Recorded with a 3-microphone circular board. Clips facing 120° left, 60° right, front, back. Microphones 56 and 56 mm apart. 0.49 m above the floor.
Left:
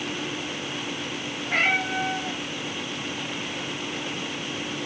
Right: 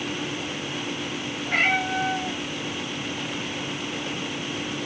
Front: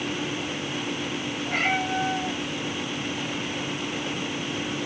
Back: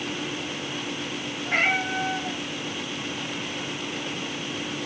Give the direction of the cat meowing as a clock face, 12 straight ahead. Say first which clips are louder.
Right 1 dB, back 2 dB; 5 o'clock.